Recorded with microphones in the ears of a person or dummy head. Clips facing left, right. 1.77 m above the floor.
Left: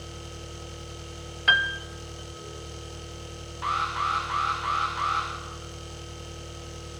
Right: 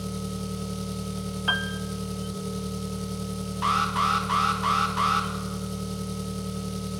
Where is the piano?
20° left (ahead or behind), 0.8 m.